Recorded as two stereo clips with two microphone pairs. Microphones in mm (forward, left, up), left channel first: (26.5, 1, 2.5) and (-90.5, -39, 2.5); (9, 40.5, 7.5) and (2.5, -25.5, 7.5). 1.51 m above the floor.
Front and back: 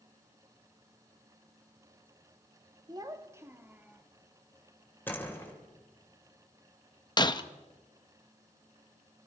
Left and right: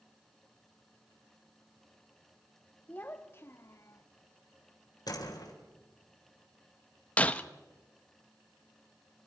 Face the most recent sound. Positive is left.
turn(degrees=35)